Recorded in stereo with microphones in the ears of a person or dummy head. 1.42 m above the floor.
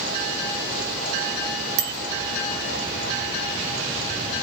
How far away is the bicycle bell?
About 2.5 m.